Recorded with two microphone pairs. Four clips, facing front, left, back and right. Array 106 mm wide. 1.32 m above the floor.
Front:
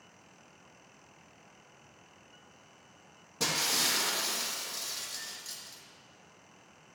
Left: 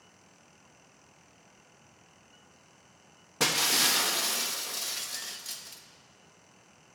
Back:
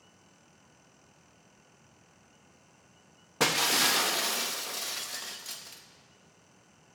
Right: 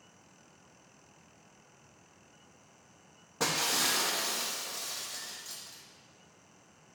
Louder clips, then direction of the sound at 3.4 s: Left 2 dB, back 6 dB; 175° left.